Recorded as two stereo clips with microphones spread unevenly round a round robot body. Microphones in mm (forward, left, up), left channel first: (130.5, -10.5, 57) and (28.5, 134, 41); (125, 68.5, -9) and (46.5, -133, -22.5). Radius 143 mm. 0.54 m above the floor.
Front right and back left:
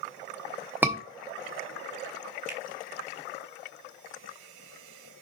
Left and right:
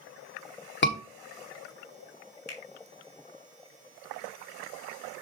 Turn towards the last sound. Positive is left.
turn(degrees=85)